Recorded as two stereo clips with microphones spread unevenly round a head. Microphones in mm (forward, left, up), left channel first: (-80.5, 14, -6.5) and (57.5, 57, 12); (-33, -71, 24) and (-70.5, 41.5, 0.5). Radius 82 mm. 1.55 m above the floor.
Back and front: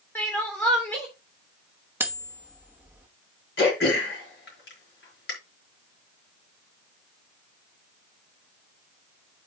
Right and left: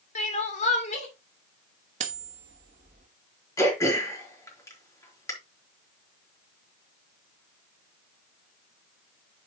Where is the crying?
80° right, 2.5 m.